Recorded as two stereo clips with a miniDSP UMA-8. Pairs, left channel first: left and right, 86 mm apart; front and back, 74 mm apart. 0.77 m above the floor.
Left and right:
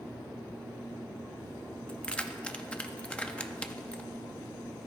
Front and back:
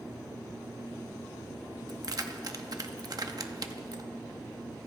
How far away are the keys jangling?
About 0.6 m.